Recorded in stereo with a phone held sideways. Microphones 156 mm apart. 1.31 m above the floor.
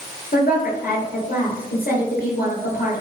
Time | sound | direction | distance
0.3 | a woman speaking | 65° left (ahead or behind) | 2.5 m